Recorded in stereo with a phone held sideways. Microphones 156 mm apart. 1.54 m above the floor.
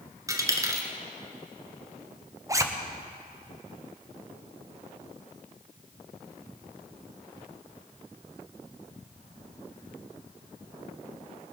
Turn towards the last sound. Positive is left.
turn(degrees=-20)  # may be behind; listen again after turning